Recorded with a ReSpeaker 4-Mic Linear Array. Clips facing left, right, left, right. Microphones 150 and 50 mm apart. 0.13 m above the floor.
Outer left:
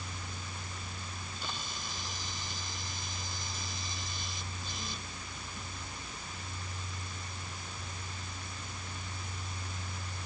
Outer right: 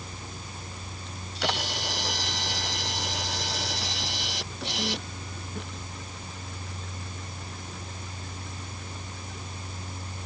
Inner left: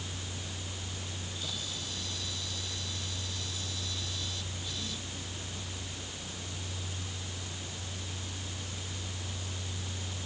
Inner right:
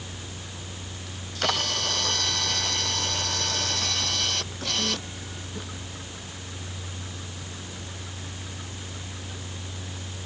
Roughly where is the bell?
I don't hear a bell.